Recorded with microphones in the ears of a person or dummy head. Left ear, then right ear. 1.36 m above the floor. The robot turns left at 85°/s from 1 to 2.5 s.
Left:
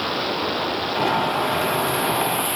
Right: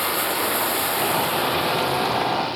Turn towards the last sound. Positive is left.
turn(degrees=130)